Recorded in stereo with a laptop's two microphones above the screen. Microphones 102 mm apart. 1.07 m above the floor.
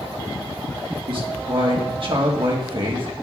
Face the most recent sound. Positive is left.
turn(degrees=-55)  # may be behind; listen again after turning